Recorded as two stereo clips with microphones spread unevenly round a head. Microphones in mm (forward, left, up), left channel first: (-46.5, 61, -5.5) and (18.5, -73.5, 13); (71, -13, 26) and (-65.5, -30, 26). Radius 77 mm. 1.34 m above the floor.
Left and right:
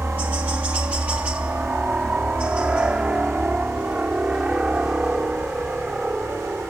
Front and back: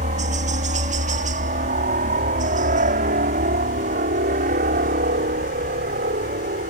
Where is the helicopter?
145° right; by 6.7 s 150° right.